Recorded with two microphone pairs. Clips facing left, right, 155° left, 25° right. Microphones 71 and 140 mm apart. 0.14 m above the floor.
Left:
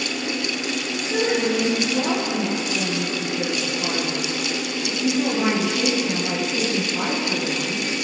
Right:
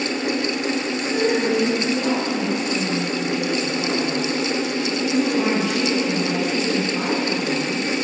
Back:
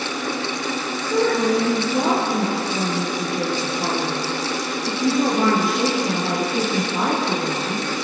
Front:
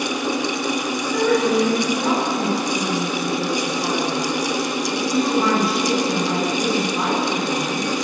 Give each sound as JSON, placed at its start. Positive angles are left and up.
{"t": 1.0, "sound": "a woman speaking", "azimuth_deg": 180, "distance_m": 3.5}